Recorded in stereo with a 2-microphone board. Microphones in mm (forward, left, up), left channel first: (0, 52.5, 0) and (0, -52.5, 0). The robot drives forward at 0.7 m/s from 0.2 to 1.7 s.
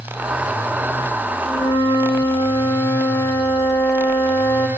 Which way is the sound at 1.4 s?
40° left (ahead or behind).